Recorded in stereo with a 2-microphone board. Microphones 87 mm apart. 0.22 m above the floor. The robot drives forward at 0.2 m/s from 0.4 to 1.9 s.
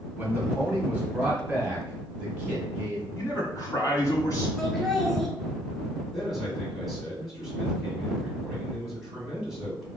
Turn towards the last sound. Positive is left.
turn(degrees=-5)  # may be behind; listen again after turning